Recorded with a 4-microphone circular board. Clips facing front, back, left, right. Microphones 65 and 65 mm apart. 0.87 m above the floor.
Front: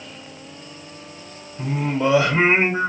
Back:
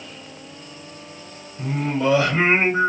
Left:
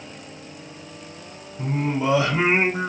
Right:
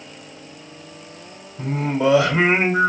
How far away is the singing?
About 1.3 m.